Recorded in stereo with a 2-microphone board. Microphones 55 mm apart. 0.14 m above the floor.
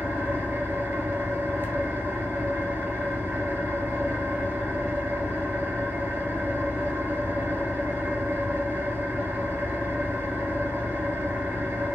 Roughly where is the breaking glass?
No breaking glass in this recording.